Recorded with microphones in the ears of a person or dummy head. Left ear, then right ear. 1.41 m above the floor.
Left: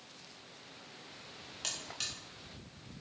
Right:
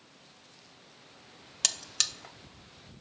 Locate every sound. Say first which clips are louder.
1.6 s a buzzer: right 9 dB; 60° right (ahead or behind), 0.7 m